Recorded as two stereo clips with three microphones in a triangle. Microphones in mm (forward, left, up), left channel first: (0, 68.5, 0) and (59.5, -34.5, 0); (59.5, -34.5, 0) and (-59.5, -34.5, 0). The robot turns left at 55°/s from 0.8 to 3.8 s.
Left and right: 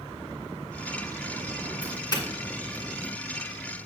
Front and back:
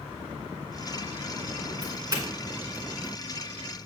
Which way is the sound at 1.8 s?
170° left.